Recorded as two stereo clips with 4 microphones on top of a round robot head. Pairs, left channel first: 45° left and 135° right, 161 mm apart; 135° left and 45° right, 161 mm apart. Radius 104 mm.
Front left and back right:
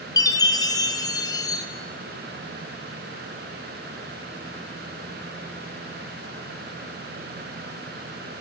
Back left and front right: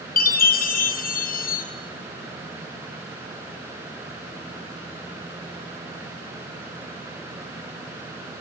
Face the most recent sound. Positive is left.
turn(degrees=110)